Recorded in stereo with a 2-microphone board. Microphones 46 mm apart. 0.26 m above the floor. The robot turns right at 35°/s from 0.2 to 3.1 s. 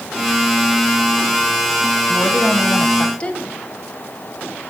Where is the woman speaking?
100° left, 1.1 m; by 3.4 s 135° left, 1.1 m.